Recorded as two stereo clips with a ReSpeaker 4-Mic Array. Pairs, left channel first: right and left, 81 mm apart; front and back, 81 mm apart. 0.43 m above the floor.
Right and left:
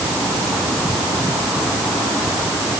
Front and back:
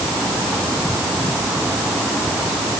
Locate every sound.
Only background noise.